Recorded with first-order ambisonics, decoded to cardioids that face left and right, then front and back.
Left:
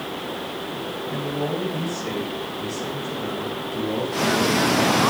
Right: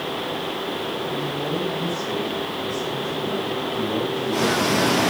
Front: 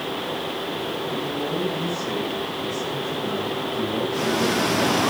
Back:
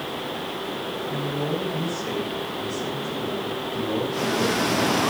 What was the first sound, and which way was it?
A man speaking, 110° left.